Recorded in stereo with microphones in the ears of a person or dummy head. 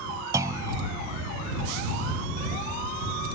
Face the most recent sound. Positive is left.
turn(degrees=-15)  # may be behind; listen again after turning